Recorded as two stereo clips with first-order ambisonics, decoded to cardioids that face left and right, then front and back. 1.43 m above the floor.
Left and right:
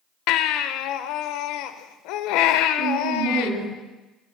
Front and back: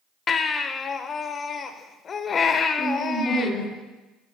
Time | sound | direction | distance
0.3 | a baby crying | 65° left | 0.7 m
2.8 | a woman speaking | 125° right | 4 m